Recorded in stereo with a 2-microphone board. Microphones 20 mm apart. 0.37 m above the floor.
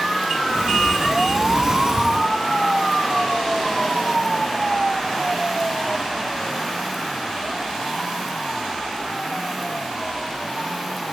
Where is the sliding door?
30° right (ahead or behind), 1.9 m.